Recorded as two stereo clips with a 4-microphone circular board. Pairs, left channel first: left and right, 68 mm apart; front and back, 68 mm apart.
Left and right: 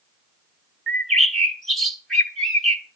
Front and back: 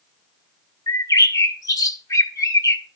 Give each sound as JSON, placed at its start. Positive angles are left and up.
{"t": 0.9, "sound": "a bird", "azimuth_deg": 5, "distance_m": 1.3}